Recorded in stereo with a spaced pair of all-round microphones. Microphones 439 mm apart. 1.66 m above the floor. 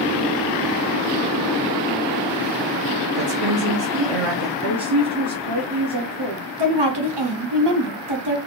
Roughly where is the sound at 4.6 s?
Right.